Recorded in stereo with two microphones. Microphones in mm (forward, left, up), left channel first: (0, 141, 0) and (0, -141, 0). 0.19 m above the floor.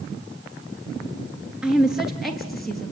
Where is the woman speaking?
5° right (ahead or behind), 3 m; by 2.9 s 5° left (ahead or behind), 4 m.